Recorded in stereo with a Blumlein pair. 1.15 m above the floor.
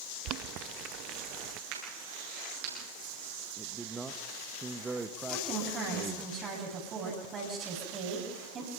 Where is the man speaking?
10° right, 1.3 m.